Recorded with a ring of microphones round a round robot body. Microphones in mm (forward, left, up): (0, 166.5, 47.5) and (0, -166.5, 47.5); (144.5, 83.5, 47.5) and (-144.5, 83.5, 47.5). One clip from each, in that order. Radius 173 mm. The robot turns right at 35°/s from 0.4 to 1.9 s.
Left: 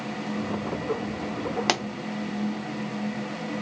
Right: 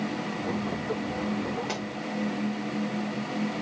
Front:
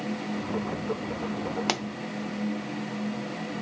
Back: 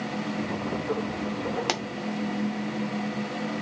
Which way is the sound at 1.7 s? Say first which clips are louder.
Left 8 dB, front 1 dB; 90° left.